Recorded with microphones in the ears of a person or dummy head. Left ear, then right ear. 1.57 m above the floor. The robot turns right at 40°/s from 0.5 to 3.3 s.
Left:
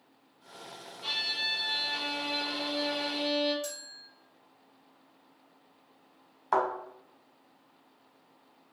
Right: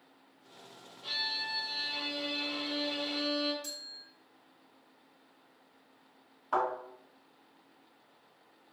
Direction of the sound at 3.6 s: 55° left (ahead or behind).